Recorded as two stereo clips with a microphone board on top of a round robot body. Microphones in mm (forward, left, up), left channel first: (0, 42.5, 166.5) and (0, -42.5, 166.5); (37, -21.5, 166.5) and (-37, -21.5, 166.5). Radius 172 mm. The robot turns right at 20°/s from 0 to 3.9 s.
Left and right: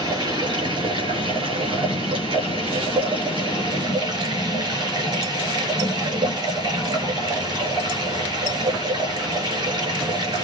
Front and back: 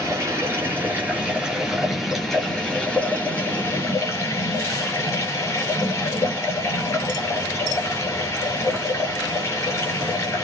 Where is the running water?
130° right, 9.5 m; by 10.4 s 50° right, 9.5 m.